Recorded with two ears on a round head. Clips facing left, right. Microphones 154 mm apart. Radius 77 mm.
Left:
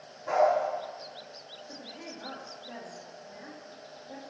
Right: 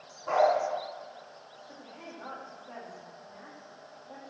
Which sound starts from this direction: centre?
A dog barking, at 0.3 s.